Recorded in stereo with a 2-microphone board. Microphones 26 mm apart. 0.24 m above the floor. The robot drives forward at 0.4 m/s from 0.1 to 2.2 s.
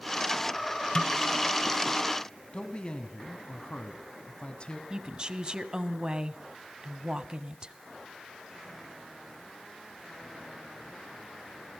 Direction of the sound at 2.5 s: 35° left (ahead or behind).